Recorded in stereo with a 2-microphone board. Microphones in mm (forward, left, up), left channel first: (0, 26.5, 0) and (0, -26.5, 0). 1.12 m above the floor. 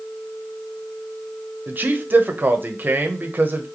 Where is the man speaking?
35° right (ahead or behind), 0.8 m.